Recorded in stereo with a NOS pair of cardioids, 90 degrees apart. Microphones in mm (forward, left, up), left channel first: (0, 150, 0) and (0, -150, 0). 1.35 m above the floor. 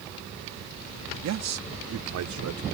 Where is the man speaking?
60° right; by 2.6 s 70° right.